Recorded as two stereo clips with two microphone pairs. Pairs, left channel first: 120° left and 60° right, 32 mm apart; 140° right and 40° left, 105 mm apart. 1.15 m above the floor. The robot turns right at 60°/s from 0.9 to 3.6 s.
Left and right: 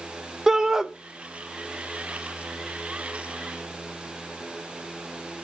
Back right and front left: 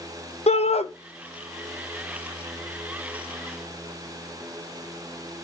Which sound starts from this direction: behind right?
A shout, at 0.5 s.